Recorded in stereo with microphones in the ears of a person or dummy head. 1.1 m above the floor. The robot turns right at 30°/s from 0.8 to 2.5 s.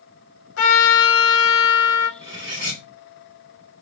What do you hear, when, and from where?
0.6 s a trumpet: 80° left, 1.0 m; by 2.1 s 120° left, 1.0 m
2.2 s cutlery clinking: 5° right (ahead or behind), 1.7 m; by 2.8 s 15° right (ahead or behind), 1.7 m